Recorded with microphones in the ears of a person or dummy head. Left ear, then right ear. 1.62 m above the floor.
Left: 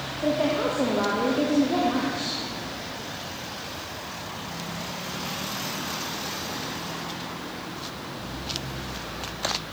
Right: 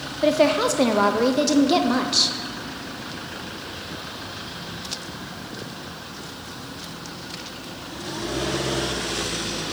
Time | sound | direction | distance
0.2 | a woman speaking | 80° right | 0.8 m